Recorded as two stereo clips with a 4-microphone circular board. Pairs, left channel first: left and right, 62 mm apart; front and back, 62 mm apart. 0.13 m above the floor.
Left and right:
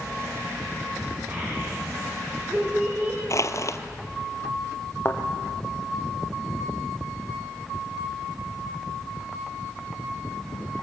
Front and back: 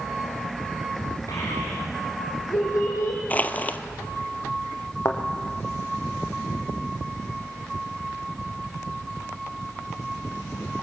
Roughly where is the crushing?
Ahead left.